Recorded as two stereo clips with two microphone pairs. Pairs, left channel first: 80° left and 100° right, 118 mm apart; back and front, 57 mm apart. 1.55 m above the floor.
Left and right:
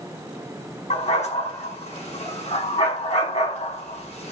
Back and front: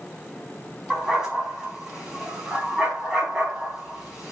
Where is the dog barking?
80° left, 4.5 m.